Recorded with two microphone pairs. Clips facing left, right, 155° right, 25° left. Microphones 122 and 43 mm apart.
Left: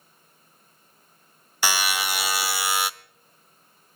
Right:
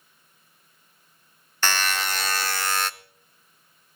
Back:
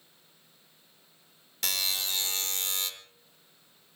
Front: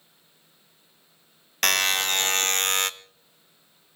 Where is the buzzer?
10° left, 0.6 m.